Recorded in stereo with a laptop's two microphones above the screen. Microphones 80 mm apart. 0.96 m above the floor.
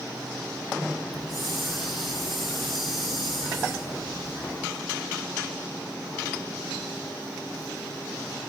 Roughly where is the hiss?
Centre.